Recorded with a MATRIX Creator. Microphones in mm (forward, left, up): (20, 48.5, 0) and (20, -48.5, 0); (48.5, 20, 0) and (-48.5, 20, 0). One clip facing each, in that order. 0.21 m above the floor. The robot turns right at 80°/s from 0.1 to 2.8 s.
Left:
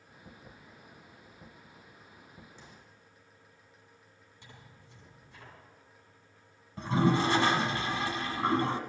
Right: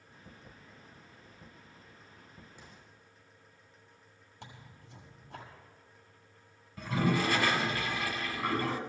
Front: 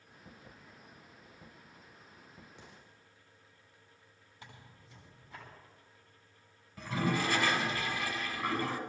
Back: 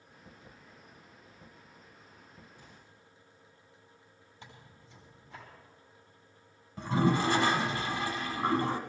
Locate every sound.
2.6 s an explosion: 10° right, 3.5 m; by 3.0 s 5° left, 3.5 m
4.4 s tearing paper: 90° right, 7 m
6.8 s a toilet flushing: 130° left, 1.5 m